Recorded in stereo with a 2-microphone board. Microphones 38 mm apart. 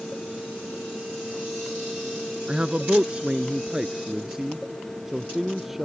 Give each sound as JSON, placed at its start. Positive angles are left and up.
{"t": 2.5, "sound": "a man speaking", "side_deg": -30}